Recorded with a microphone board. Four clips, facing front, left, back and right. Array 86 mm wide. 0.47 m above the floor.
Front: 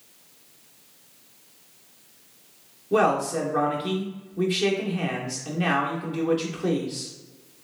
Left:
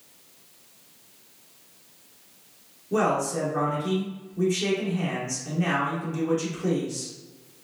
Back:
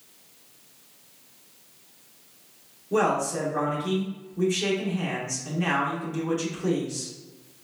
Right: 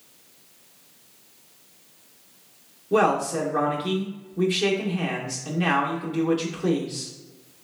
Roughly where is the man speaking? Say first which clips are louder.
Right 3 dB, front 2 dB; ahead right.